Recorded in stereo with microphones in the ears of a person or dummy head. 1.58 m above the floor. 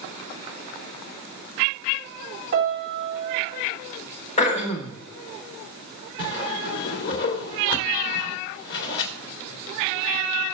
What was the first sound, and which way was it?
A piano, 45° right (ahead or behind).